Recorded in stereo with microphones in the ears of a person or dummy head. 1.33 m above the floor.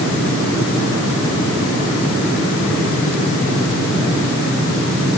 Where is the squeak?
No squeak in this recording.